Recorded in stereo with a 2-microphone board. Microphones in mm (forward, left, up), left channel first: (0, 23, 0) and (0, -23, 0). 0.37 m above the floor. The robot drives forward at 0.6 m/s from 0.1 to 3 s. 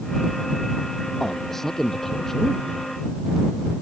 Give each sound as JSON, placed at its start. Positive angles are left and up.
{"t": 1.2, "sound": "a man speaking", "side_deg": 10}